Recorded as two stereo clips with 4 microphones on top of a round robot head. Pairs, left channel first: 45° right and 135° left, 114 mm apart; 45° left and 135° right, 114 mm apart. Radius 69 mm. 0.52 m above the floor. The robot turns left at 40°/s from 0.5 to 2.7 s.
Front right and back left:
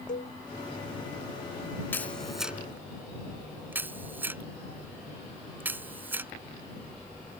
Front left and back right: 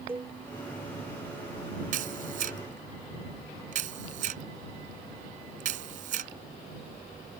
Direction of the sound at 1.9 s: 120° right.